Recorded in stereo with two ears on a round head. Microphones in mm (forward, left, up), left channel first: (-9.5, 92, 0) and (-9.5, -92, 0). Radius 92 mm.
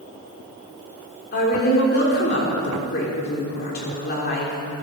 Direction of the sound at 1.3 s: 45° left (ahead or behind).